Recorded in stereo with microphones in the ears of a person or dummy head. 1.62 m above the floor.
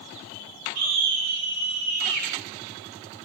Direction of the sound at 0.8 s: 80° right.